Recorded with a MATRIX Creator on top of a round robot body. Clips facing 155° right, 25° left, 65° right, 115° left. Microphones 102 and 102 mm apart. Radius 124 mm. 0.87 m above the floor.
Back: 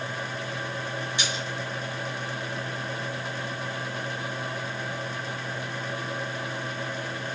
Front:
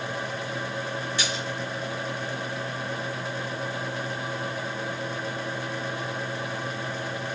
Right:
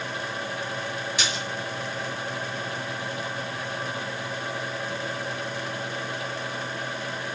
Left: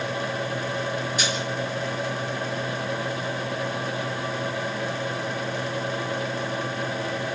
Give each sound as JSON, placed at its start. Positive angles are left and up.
{"t": 1.2, "sound": "a splash", "azimuth_deg": -85, "distance_m": 2.5}